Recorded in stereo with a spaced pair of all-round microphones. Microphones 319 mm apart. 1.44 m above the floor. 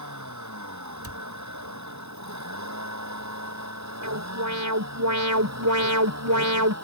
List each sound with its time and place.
0.0 s a vehicle: 65° right (ahead or behind); by 6.9 s 55° right (ahead or behind)
1.0 s a cupboard door: 45° left (ahead or behind)
4.0 s an alarm: 65° right (ahead or behind)